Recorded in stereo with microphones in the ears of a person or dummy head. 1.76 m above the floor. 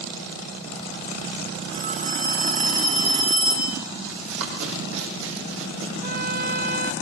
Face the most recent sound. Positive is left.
turn(degrees=-50)  # may be behind; listen again after turning